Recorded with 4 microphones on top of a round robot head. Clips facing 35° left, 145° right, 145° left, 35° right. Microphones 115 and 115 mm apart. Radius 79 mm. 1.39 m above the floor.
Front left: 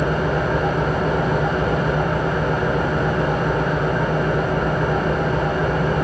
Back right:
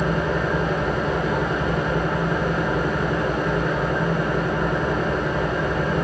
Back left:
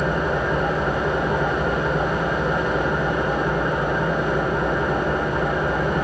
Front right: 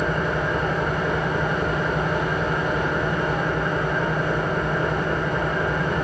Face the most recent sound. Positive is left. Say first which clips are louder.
# front left 2 dB, back left 2 dB
turn(degrees=70)